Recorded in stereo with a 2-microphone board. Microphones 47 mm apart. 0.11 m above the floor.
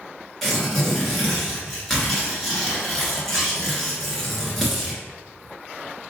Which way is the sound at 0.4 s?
5° left (ahead or behind).